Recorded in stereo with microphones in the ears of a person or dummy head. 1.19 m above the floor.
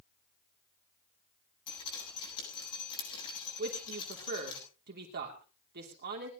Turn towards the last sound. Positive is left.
turn(degrees=-50)  # may be behind; listen again after turning